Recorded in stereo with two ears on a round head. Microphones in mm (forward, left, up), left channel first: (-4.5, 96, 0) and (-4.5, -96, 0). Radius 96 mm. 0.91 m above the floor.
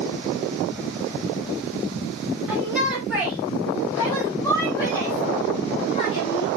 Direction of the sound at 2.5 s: Centre (ahead or behind).